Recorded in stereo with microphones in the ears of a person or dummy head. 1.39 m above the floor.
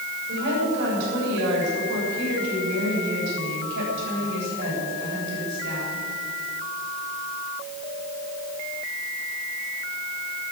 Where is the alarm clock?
I don't hear an alarm clock.